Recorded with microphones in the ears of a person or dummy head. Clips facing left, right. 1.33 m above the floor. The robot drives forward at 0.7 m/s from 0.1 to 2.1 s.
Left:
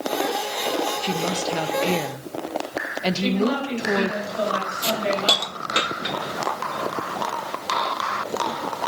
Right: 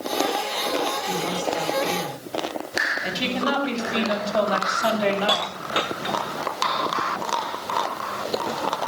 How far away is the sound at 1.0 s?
About 1.6 m.